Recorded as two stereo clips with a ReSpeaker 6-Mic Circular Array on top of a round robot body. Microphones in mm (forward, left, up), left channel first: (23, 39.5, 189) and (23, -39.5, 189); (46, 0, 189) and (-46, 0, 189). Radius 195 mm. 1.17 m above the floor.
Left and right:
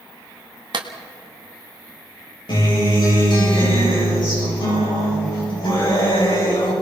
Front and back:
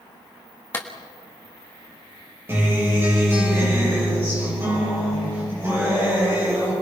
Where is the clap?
70° right, 1.5 m.